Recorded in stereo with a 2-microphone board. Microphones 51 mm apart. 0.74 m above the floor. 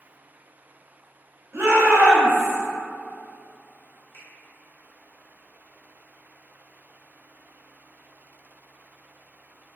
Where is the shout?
55° right (ahead or behind), 0.9 m; by 2.6 s 40° right (ahead or behind), 0.9 m.